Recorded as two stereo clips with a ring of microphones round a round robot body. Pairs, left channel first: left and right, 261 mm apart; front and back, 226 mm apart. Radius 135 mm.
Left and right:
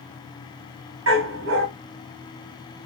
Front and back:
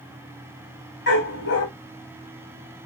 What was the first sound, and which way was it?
A dog barking, 50° right.